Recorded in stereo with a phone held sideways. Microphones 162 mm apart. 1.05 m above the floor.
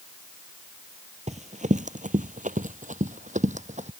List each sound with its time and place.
1.3 s running footsteps: 45° right (ahead or behind)